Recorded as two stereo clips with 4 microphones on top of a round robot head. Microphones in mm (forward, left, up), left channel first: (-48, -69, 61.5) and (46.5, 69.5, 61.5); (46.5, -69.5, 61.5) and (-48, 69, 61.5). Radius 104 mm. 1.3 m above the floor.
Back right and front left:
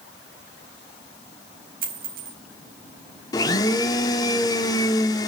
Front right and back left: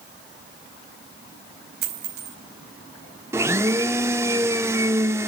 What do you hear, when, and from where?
1.8 s a dropped coin: 95° left, 4.5 m
3.3 s a blender: 175° right, 0.9 m